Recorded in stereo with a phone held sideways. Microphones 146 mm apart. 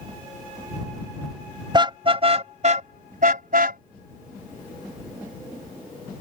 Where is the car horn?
30° right (ahead or behind); by 3.8 s 80° right.